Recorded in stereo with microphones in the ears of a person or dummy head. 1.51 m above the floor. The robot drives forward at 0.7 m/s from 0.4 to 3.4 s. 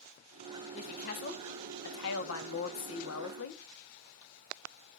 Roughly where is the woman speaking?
Left.